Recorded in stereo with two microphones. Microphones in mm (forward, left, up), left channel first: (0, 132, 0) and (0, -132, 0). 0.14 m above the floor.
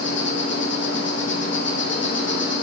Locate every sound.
0.0 s an insect: 45° left (ahead or behind), 4 m